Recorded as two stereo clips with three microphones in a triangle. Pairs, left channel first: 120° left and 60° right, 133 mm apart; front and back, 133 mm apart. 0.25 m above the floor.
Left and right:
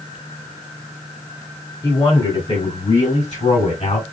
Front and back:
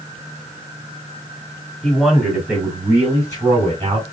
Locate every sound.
1.8 s a man speaking: 85° left, 2 m; by 4.0 s 135° left, 2.5 m